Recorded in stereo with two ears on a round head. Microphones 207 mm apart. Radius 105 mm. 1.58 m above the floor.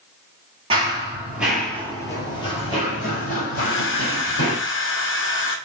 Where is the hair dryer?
55° left (ahead or behind), 0.8 m.